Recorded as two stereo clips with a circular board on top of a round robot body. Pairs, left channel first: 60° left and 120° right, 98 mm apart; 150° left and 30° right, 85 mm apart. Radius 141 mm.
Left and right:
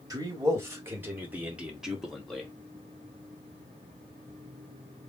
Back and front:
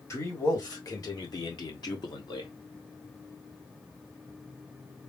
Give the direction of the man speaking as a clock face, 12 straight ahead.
6 o'clock.